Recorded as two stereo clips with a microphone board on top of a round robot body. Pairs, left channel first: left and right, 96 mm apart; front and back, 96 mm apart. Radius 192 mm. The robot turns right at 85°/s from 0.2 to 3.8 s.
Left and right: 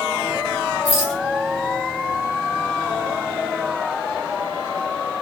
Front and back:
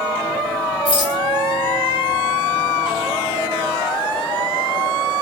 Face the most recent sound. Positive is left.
turn(degrees=-80)